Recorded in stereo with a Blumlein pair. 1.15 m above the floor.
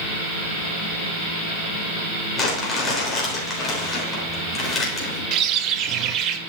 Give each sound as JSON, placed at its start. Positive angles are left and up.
{"t": 2.4, "sound": "crumpling", "azimuth_deg": 15, "distance_m": 3.5}
{"t": 5.3, "sound": "a bird", "azimuth_deg": -35, "distance_m": 0.7}